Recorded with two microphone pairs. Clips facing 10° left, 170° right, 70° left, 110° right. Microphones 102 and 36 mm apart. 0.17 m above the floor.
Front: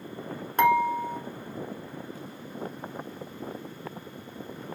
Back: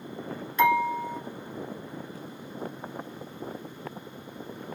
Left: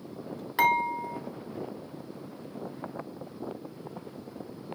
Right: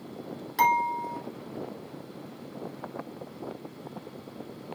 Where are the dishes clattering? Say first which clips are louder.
Front 1 dB, right 1 dB; 10° left, 1.3 m.